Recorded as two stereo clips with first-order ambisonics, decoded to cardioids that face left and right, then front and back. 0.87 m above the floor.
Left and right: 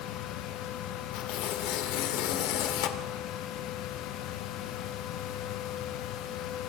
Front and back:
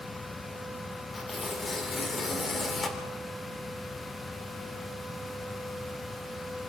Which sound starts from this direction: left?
Tearing paper, at 1.1 s.